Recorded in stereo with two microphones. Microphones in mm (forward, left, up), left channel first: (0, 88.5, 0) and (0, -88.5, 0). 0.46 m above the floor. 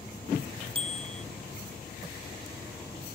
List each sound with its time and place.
0.8 s a bicycle bell: 30° right (ahead or behind)